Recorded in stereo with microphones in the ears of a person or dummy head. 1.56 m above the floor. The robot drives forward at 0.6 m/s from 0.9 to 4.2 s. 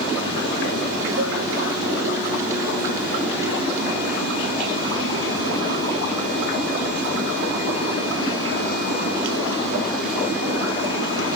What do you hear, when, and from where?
1.2 s a cowbell: 70° right (ahead or behind), 8.5 m